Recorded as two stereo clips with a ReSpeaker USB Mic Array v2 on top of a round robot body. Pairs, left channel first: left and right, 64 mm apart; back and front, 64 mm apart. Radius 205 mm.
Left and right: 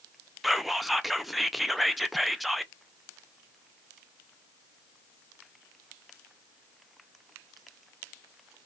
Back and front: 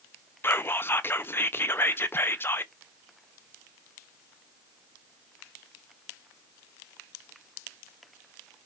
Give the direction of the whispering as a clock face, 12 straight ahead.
6 o'clock.